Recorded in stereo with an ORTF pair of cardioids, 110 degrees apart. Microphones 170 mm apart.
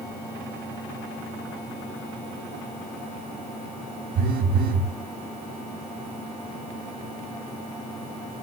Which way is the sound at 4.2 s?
65° right.